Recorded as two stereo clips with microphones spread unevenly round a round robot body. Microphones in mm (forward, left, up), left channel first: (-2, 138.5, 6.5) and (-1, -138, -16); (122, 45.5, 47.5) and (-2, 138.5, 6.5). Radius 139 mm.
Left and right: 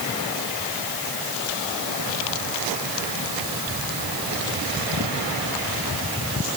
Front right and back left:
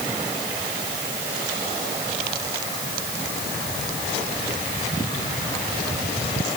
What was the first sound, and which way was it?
Only background noise.